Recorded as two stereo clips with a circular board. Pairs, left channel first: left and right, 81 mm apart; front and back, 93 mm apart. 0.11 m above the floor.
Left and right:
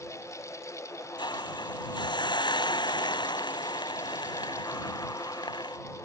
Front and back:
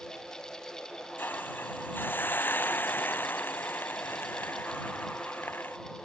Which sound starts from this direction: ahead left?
A hiss, at 1.2 s.